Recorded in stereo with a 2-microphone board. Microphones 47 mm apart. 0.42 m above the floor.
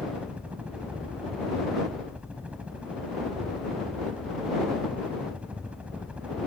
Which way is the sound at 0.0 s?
25° right (ahead or behind).